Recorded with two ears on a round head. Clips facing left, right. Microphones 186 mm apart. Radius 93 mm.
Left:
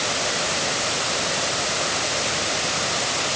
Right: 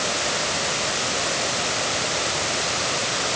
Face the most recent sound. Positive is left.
No sound to turn to.